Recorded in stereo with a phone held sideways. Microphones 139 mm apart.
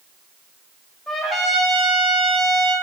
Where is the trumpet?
Centre (ahead or behind), 1.6 m.